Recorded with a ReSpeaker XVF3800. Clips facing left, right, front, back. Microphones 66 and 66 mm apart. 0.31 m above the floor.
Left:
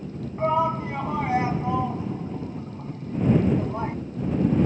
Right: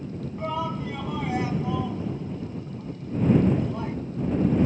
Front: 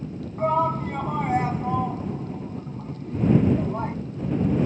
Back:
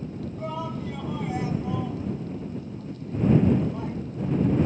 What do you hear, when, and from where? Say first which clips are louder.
0.4 s a shout: left 7 dB, front 12 dB; 35° left